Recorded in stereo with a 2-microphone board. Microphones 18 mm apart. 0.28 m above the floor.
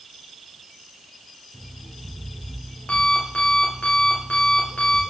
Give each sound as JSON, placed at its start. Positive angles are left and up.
{"t": 1.5, "sound": "an alarm clock", "side_deg": 80, "distance_m": 7.5}